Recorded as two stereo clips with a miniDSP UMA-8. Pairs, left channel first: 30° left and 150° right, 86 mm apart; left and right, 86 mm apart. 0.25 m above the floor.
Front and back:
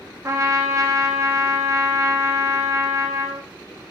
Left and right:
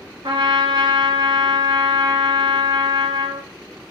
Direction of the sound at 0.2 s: 95° right.